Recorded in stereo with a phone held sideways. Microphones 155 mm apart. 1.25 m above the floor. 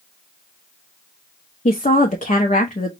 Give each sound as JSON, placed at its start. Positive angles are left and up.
{"t": 1.6, "sound": "a woman speaking", "side_deg": 50, "distance_m": 0.6}